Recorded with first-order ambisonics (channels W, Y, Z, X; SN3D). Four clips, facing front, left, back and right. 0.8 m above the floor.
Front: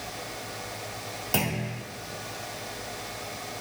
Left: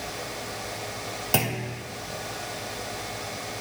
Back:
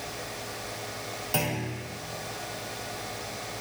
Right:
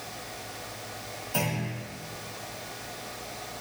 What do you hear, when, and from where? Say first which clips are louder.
1.3 s a clunk: left 3 dB, front 1 dB; 80° left, 1.4 m